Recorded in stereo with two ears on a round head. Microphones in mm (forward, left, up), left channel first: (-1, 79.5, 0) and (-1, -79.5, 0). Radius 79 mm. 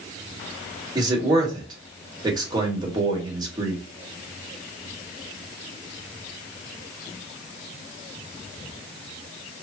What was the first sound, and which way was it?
A man speaking, 25° right (ahead or behind).